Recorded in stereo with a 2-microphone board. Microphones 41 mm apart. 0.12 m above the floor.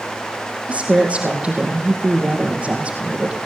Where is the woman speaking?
30° right (ahead or behind), 4 m.